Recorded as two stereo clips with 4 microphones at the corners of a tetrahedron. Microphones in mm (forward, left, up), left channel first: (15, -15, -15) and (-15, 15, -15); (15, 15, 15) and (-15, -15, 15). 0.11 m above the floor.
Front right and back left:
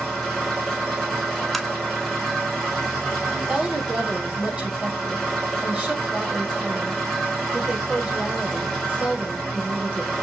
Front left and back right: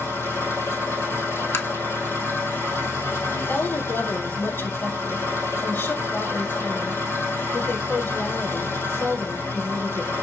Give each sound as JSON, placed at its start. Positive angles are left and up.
{"t": 0.0, "sound": "an engine running", "azimuth_deg": 45, "distance_m": 4.0}
{"t": 1.5, "sound": "tapping", "azimuth_deg": 45, "distance_m": 0.6}
{"t": 3.3, "sound": "a woman speaking", "azimuth_deg": 65, "distance_m": 2.5}